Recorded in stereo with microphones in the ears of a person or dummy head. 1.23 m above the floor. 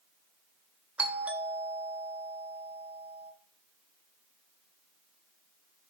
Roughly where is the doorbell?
Centre.